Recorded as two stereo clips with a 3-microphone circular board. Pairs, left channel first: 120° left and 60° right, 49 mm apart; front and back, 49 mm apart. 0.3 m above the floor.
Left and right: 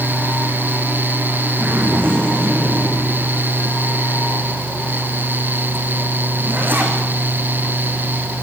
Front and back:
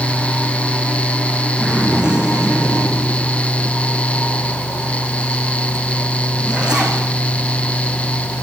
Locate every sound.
1.6 s a zipper: 110° right, 8 m